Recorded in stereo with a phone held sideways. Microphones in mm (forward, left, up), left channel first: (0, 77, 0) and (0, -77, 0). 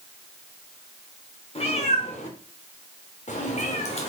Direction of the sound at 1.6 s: 40° left (ahead or behind).